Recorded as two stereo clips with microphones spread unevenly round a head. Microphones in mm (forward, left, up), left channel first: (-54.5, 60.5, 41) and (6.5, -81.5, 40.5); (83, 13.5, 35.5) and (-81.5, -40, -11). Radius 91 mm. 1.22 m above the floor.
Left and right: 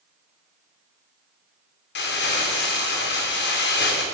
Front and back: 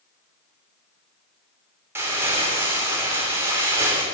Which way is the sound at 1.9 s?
120° left.